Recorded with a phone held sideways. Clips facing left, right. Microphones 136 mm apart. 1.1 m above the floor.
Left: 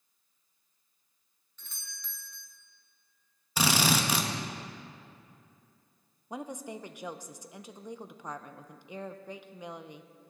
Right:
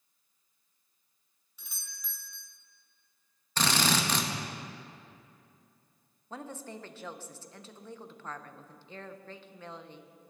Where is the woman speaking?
15° left (ahead or behind), 0.6 m.